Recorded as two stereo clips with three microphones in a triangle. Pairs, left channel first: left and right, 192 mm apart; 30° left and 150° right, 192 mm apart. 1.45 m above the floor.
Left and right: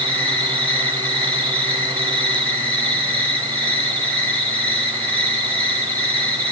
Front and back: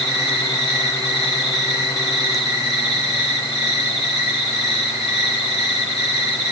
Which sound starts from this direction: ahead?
An insect, at 0.0 s.